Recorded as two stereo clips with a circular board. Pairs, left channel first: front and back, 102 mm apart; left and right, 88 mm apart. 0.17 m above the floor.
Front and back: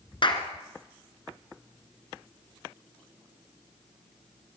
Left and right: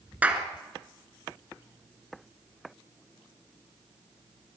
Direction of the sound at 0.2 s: 20° right.